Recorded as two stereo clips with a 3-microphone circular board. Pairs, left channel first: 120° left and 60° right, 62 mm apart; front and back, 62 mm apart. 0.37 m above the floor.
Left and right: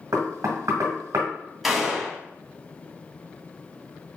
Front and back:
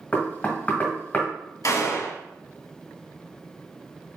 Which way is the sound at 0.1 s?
60° right.